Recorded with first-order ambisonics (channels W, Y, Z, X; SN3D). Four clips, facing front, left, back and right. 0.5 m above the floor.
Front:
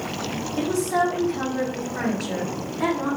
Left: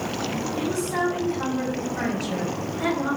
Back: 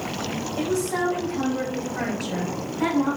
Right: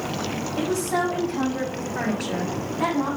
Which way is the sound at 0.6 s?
35° right.